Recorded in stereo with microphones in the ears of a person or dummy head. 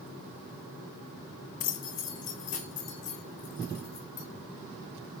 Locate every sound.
1.6 s keys jangling: 45° left (ahead or behind), 1.4 m; by 4.3 s 40° left (ahead or behind), 4 m